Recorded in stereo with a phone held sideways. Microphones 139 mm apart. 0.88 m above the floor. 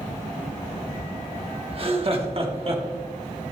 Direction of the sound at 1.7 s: 40° right (ahead or behind).